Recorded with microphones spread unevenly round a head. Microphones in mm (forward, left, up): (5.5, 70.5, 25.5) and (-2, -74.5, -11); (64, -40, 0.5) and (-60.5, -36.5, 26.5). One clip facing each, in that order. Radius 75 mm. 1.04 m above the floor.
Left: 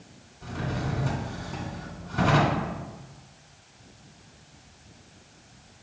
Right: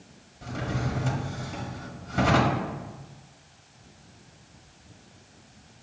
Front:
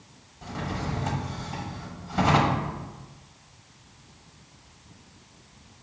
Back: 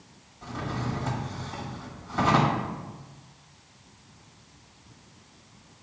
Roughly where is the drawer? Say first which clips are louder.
Right 1 dB, even; right.